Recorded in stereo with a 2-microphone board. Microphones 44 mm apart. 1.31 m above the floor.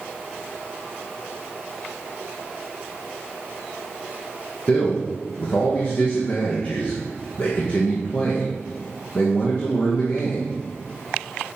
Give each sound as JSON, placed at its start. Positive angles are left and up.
{"t": 4.7, "sound": "a man speaking", "side_deg": 45, "distance_m": 1.1}